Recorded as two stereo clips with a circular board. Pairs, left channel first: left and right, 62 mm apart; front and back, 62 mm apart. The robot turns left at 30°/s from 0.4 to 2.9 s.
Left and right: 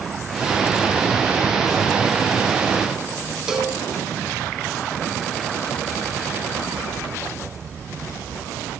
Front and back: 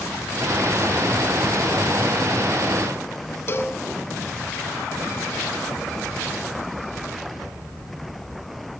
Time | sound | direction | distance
3.5 | a cowbell | 15° right | 0.8 m